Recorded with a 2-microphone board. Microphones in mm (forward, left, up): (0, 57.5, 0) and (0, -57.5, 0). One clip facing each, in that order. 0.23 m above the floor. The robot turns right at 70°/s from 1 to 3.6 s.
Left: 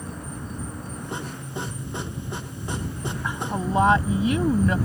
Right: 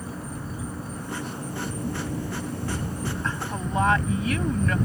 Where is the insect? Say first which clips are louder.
Right 1 dB; 175° right; by 4.9 s 5° left.